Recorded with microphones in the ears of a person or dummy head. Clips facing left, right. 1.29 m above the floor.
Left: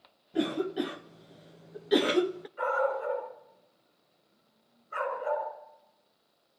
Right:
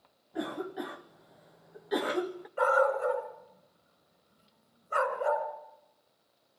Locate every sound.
0.3 s a cough: 35° left (ahead or behind), 0.5 m
2.6 s a dog barking: 75° right (ahead or behind), 3.5 m